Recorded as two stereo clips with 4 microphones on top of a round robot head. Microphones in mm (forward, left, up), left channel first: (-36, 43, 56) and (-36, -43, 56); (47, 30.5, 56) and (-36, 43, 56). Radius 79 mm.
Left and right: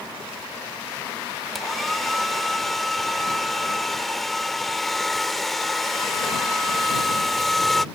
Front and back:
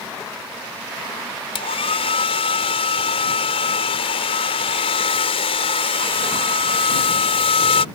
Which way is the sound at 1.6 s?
Straight ahead.